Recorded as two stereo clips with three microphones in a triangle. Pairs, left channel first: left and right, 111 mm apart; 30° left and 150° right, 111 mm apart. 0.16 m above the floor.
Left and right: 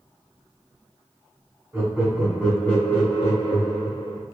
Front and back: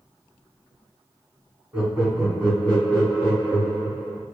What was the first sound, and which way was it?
Laughter, 95° right.